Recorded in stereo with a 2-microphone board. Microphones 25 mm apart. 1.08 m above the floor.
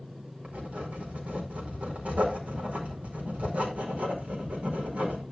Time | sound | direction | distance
0.4 | writing | 75° right (ahead or behind) | 4.5 m